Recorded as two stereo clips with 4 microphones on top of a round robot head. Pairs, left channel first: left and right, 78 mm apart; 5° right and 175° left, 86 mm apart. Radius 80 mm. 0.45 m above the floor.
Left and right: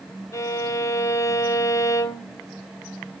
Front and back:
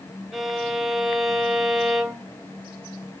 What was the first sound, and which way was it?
A violin, 85° left.